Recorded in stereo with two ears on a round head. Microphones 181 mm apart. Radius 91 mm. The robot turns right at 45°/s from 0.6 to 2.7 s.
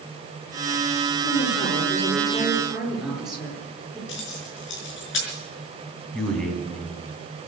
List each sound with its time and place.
1.2 s a woman speaking: 115° left, 7.5 m; by 4.0 s 175° right, 7.5 m
4.1 s keys jangling: 65° left (ahead or behind), 5 m
6.1 s a man speaking: 5° left (ahead or behind), 4 m